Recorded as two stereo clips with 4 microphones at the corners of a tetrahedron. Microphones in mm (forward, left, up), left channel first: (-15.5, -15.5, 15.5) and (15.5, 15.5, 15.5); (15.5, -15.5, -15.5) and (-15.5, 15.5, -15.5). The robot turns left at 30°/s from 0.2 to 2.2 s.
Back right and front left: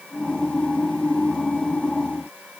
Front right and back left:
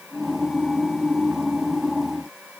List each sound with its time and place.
Only background noise.